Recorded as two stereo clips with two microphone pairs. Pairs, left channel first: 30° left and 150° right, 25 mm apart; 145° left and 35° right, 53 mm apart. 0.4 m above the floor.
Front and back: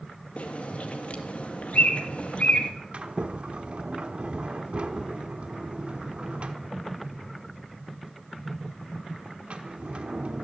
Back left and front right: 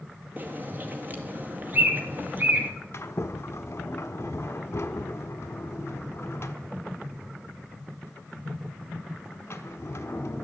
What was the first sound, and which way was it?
A bird, 20° left.